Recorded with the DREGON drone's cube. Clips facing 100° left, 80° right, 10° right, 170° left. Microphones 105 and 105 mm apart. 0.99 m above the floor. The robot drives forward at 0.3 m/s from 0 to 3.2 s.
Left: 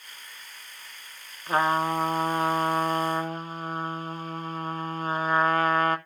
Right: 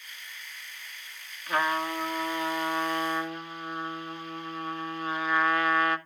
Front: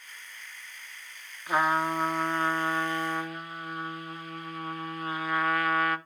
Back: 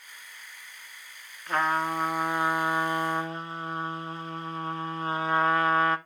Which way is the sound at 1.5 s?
65° left.